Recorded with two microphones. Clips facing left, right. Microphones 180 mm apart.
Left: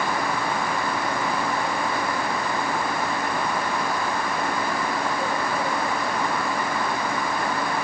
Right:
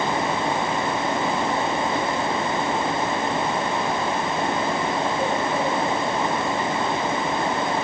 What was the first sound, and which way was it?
Only background noise.